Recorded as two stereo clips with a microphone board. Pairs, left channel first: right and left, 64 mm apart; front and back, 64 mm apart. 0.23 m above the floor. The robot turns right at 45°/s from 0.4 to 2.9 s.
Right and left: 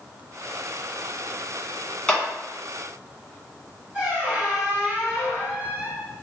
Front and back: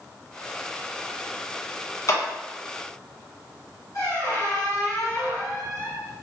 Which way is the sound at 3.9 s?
20° left.